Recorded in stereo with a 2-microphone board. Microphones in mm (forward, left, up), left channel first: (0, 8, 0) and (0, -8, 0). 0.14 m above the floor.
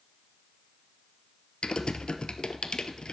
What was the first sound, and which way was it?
Typing on a keyboard, 70° left (ahead or behind).